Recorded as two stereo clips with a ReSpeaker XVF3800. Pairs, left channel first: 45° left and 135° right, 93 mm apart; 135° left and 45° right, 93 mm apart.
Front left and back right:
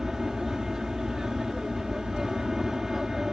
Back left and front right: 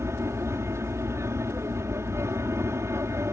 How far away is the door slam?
I don't hear a door slam.